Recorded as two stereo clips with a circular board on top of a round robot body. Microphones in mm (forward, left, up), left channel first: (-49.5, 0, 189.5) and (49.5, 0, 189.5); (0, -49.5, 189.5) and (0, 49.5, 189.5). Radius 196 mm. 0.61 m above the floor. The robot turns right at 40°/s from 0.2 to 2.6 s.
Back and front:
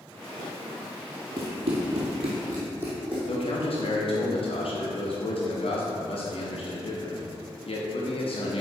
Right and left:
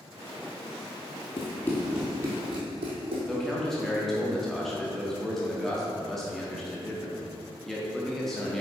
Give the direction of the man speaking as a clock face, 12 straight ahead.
6 o'clock.